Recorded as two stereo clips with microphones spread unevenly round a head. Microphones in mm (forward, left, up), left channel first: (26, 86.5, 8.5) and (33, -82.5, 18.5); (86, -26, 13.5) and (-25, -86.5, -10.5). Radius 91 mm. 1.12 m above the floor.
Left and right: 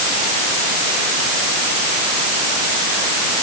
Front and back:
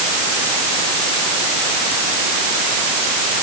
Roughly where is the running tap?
No running tap in this recording.